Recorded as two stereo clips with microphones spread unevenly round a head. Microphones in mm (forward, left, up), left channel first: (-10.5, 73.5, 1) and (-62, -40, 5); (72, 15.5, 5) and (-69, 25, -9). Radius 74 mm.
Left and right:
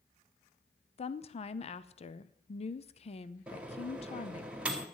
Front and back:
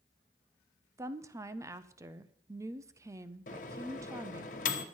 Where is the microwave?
35° right, 1.1 m.